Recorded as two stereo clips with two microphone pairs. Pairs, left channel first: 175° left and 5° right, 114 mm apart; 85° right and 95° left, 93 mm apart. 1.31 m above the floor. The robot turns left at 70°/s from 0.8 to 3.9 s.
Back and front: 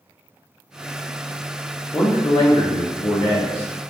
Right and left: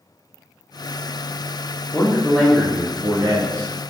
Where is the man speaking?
140° right, 0.5 m; by 3.7 s 100° left, 0.5 m.